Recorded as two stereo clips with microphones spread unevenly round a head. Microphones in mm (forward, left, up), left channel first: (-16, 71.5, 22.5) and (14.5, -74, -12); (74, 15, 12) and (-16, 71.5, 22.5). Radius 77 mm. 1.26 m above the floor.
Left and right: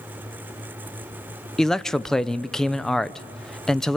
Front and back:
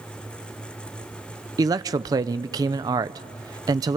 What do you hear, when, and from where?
1.6 s a man speaking: 160° right, 0.6 m